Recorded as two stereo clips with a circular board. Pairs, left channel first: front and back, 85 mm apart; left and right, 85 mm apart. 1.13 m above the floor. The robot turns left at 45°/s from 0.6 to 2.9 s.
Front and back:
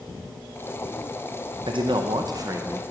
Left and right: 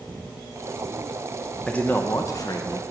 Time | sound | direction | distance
1.7 | a man speaking | 170° left | 0.5 m